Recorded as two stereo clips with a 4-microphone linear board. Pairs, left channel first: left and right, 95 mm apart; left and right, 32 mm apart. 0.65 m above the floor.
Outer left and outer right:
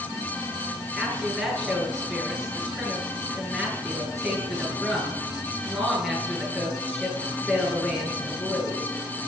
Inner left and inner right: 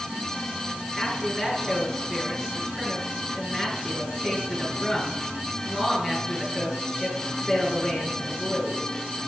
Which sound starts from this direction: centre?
A woman speaking, at 1.0 s.